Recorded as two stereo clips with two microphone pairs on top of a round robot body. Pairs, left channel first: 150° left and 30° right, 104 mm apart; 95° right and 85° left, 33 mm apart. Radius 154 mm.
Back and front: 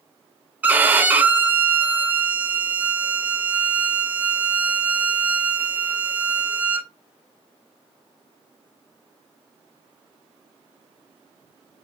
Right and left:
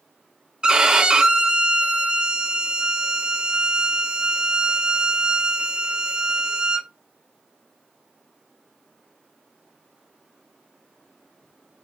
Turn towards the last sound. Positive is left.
turn(degrees=45)